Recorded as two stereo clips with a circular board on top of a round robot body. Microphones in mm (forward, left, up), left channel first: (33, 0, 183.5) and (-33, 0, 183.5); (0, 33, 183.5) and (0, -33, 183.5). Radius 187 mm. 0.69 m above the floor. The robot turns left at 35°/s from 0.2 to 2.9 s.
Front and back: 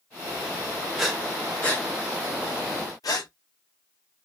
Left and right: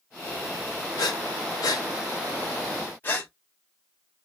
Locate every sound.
1.0 s breathing: 95° left, 0.6 m; by 3.3 s 25° left, 0.6 m